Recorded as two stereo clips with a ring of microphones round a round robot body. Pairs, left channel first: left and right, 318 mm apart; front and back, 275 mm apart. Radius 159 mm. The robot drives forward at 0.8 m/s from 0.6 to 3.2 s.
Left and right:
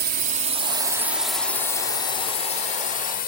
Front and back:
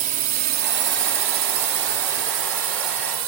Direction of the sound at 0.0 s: 130° right.